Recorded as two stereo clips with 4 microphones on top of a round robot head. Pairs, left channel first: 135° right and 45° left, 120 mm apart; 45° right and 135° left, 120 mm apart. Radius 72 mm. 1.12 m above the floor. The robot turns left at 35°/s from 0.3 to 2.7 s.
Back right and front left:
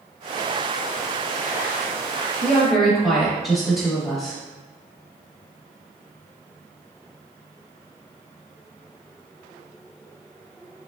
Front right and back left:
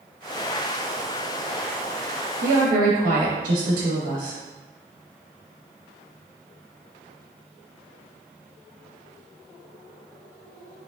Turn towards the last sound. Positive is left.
turn(degrees=160)